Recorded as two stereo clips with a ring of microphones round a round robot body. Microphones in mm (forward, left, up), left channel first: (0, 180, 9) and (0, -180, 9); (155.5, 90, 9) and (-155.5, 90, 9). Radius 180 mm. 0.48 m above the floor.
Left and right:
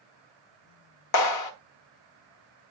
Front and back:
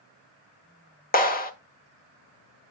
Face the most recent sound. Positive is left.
turn(degrees=60)